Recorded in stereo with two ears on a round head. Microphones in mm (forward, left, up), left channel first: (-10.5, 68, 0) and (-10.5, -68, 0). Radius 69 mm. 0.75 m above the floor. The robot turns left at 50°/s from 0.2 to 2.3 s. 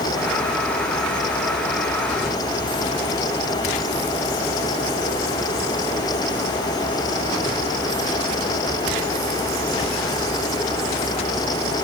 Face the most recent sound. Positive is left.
No sound to turn to.